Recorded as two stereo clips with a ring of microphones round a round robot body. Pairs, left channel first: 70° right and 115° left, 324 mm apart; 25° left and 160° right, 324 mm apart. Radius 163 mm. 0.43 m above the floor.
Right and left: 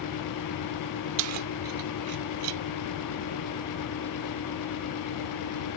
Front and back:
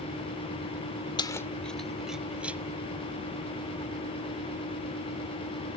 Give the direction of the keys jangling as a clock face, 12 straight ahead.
9 o'clock.